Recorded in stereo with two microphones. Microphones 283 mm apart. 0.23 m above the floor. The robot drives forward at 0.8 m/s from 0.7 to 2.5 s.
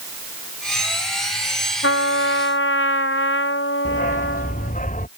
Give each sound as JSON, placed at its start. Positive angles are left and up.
{"t": 1.8, "sound": "a trumpet", "side_deg": 50}
{"t": 3.9, "sound": "a dog barking", "side_deg": 30}